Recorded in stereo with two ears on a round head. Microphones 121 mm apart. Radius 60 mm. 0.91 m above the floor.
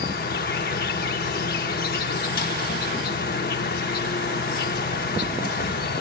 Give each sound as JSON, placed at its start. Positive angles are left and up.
{"t": 0.0, "sound": "an insect", "side_deg": 75, "distance_m": 1.0}